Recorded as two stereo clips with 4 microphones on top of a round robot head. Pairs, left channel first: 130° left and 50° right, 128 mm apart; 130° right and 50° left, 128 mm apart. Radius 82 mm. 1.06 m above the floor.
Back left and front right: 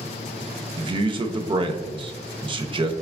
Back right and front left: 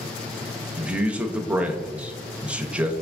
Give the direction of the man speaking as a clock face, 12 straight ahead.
1 o'clock.